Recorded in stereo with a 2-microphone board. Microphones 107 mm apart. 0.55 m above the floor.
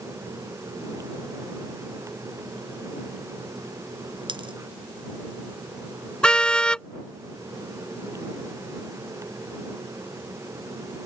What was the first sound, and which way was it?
A dropped coin, 50° right (ahead or behind).